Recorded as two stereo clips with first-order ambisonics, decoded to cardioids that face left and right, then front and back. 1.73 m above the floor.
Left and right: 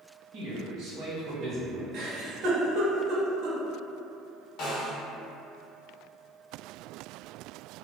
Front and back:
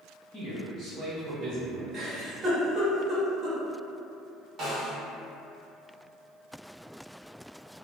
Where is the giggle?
125° right, 0.7 m.